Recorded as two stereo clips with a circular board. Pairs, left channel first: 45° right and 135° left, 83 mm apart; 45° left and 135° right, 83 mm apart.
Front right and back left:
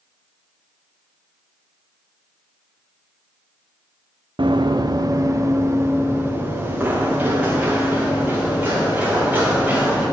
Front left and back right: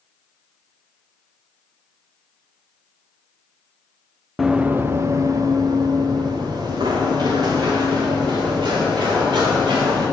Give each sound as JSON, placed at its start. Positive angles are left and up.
{"t": 4.4, "sound": "running footsteps", "azimuth_deg": 140, "distance_m": 0.5}